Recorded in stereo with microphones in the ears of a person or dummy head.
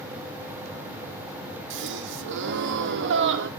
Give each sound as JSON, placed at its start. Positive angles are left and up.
{"t": 1.7, "sound": "a gasp", "side_deg": -65, "distance_m": 1.3}